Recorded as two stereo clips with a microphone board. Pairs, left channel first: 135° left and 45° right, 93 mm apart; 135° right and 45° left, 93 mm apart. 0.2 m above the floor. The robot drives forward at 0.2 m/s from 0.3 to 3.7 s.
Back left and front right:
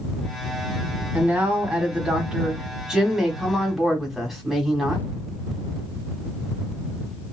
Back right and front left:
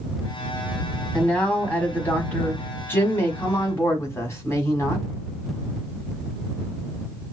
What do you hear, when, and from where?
1.1 s a man speaking: 75° right, 1.2 m; by 5.1 s 135° right, 1.3 m